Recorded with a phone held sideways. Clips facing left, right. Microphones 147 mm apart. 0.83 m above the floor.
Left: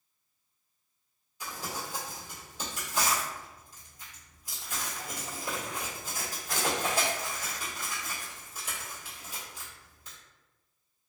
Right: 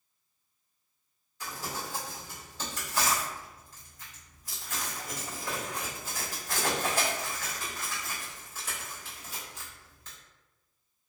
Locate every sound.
1.4 s crumpling: 15° left (ahead or behind), 1.7 m